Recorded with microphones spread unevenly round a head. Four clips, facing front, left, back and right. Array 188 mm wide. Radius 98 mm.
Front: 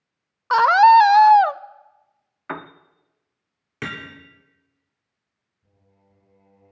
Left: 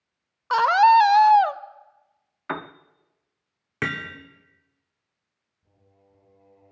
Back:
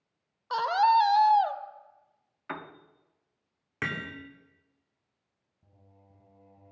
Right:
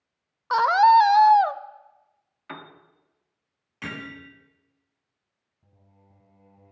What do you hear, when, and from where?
0.5 s a scream: 5° left, 0.6 m
2.5 s a piano: 55° left, 0.6 m
3.8 s hammering: 75° left, 2.5 m
5.6 s singing: 140° right, 4.5 m